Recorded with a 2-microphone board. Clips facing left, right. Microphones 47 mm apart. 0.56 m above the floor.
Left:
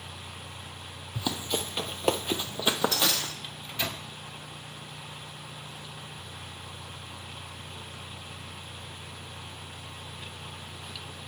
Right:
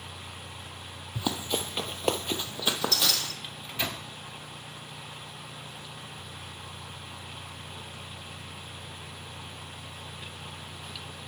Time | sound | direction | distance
1.1 | running footsteps | 15° right (ahead or behind) | 0.7 m
3.4 | a microwave | 10° right (ahead or behind) | 0.7 m